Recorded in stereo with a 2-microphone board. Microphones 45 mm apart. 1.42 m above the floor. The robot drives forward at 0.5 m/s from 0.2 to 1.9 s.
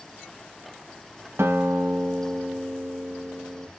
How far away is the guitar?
About 1.6 m.